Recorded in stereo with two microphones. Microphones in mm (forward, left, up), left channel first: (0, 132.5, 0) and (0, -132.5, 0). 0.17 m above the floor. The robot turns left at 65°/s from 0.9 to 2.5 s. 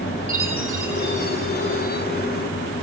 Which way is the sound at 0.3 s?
170° right.